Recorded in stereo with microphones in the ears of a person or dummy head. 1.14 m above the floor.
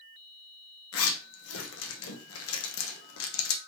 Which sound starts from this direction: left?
A zipper, at 0.9 s.